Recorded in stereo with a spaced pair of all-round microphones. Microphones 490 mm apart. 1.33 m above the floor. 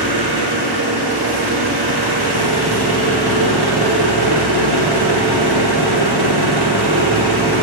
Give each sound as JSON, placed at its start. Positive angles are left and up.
{"t": 0.0, "sound": "an engine running", "side_deg": -50, "distance_m": 0.7}